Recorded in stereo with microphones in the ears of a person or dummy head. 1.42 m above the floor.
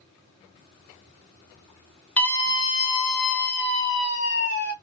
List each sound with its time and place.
2.2 s a scream: 10° left (ahead or behind), 1.0 m; by 4.7 s 80° left, 2 m